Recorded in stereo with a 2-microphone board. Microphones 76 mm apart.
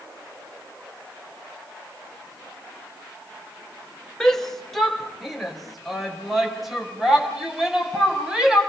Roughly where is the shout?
Centre.